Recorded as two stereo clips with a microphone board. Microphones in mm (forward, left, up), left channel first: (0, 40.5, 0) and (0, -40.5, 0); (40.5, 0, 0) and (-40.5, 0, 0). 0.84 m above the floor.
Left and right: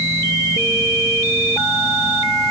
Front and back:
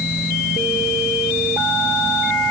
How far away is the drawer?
No drawer in this recording.